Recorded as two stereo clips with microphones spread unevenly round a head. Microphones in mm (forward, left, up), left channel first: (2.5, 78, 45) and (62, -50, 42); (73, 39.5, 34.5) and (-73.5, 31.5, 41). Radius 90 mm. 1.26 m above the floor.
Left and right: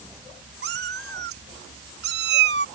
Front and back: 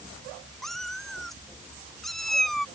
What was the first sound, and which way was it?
A cat meowing, 85° right.